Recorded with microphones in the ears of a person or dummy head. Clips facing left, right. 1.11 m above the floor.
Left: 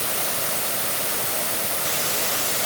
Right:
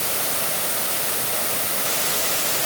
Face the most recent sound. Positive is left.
No sound to turn to.